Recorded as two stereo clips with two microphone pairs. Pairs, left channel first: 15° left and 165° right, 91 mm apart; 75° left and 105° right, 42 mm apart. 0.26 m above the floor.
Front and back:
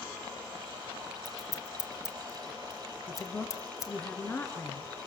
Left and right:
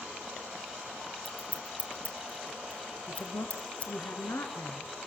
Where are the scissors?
35° left, 2.0 m.